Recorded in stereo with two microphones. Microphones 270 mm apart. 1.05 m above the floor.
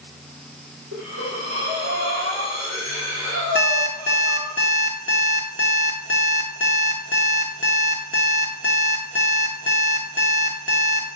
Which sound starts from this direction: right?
Breathing, at 0.9 s.